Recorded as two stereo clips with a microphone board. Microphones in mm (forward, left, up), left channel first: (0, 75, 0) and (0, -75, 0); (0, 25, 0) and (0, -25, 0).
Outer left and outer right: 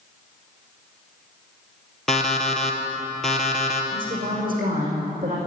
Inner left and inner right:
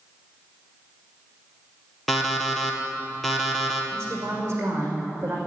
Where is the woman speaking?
60° right (ahead or behind), 5.5 m.